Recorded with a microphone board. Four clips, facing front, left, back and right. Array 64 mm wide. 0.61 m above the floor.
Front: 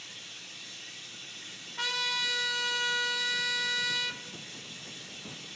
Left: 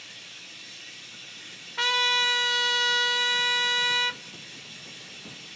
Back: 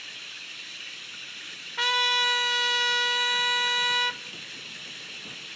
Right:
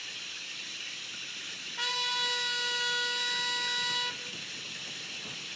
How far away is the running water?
About 1.2 m.